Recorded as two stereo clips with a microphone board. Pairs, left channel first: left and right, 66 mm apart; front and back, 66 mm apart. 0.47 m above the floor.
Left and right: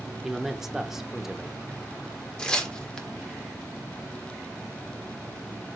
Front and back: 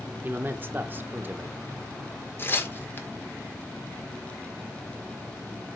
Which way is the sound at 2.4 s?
20° left.